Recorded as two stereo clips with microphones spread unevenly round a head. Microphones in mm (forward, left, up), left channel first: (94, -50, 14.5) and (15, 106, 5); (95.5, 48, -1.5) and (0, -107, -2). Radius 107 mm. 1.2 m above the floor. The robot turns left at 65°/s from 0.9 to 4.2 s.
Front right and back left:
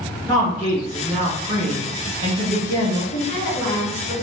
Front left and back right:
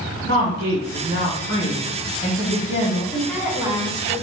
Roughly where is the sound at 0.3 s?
Behind.